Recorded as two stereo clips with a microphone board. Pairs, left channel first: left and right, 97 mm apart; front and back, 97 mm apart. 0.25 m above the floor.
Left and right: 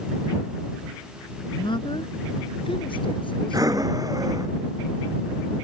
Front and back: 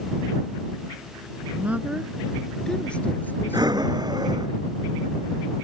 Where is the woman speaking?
115° left; by 4.5 s 55° left.